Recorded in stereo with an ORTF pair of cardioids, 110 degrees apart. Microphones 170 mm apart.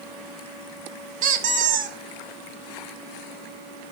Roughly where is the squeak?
Ahead right.